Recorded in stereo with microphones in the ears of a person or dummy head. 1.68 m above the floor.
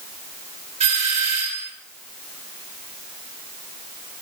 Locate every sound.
0.8 s a doorbell: 35° right (ahead or behind), 2.5 m